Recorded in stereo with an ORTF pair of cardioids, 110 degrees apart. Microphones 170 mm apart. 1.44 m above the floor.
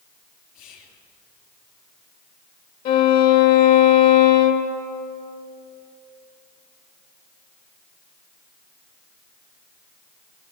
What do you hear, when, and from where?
0.6 s whispering: 65° left, 3 m
2.9 s a violin: 65° left, 1.7 m